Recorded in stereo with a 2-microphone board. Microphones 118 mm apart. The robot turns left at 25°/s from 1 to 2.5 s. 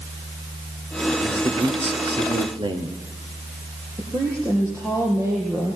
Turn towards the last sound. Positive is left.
turn(degrees=-25)  # may be behind; listen again after turning